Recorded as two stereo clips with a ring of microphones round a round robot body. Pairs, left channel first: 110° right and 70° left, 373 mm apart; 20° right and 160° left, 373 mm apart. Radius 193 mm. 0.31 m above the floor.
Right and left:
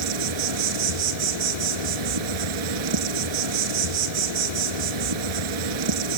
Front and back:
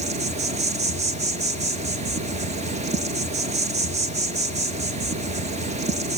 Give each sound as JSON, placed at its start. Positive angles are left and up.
{"t": 0.0, "sound": "an insect", "azimuth_deg": 85, "distance_m": 1.3}